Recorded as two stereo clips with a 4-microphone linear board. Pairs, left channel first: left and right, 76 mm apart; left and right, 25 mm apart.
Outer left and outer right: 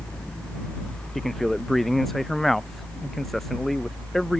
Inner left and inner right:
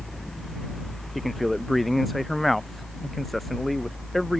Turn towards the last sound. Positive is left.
turn(degrees=0)  # may be behind; listen again after turning